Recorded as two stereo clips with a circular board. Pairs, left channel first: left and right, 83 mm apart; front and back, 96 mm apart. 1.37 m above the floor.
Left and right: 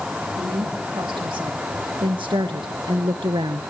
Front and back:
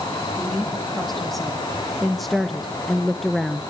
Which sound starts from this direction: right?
A woman speaking, at 0.4 s.